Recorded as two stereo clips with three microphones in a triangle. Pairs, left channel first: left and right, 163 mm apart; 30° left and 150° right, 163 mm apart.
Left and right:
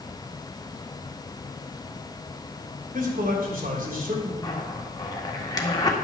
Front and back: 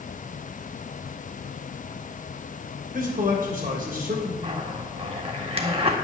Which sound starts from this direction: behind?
A zipper, at 4.4 s.